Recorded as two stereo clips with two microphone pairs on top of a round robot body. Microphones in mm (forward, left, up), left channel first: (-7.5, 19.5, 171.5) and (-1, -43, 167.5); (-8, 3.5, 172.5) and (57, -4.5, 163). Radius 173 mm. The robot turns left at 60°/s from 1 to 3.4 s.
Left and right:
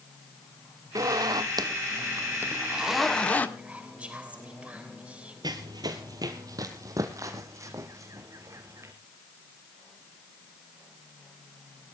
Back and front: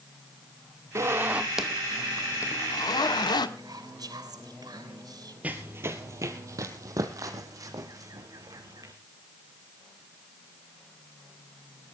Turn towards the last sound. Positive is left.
turn(degrees=-40)